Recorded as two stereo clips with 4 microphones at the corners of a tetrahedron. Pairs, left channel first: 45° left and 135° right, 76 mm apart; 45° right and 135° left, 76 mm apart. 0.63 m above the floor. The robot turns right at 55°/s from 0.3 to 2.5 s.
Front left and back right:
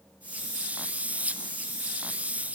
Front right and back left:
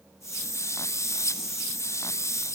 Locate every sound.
Only background noise.